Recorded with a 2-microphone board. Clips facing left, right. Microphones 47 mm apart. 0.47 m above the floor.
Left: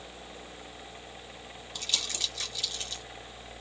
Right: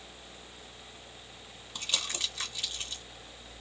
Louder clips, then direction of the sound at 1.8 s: Even; 25° right (ahead or behind).